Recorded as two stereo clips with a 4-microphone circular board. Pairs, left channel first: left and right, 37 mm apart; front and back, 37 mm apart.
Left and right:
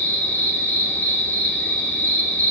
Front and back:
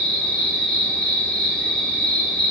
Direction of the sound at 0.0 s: 65° left.